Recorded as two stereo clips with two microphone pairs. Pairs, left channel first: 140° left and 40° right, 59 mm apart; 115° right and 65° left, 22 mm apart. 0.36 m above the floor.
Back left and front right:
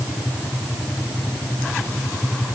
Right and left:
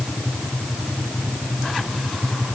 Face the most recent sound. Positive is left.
No sound to turn to.